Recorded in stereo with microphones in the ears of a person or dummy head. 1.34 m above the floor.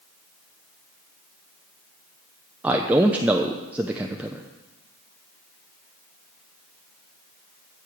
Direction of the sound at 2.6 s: 10° right (ahead or behind).